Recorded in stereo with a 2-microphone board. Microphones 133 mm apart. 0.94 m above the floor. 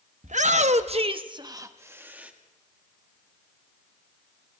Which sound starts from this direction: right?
A shout, at 0.2 s.